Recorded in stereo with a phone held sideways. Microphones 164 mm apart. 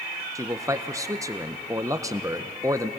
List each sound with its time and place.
0.3 s a man speaking: 20° right (ahead or behind), 0.8 m